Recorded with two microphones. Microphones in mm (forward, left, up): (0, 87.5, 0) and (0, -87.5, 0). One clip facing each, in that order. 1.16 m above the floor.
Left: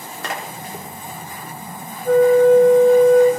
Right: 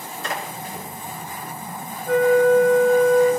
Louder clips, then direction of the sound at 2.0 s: Left 4 dB; 60° left (ahead or behind).